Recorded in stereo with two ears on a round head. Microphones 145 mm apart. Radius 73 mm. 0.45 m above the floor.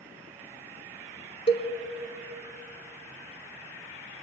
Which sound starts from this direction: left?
A cowbell, at 1.5 s.